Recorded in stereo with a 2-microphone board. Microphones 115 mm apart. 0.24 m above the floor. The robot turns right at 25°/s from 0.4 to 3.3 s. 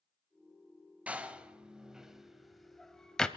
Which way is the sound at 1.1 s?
15° right (ahead or behind).